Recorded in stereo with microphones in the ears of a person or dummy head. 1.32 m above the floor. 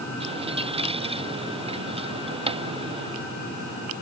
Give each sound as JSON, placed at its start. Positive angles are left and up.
{"t": 0.2, "sound": "a dropped coin", "side_deg": -25}